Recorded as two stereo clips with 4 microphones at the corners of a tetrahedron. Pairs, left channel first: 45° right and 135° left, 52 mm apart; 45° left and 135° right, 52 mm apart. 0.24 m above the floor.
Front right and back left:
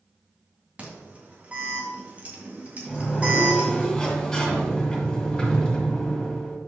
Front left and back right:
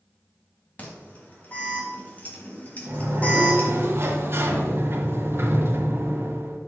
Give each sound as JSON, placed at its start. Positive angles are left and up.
{"t": 0.8, "sound": "an alarm", "azimuth_deg": 85, "distance_m": 2.5}
{"t": 2.9, "sound": "a sliding door", "azimuth_deg": -120, "distance_m": 1.9}